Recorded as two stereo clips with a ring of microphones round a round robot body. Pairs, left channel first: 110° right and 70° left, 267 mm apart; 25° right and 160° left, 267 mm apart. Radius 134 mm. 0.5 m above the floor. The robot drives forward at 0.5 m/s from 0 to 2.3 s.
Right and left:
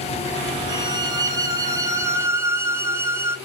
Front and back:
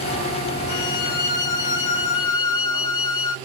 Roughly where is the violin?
Ahead.